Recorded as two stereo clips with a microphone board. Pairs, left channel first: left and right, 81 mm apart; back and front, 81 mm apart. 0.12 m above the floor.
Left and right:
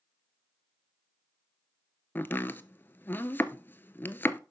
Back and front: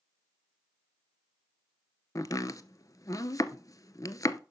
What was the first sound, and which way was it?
Chopping, 150° left.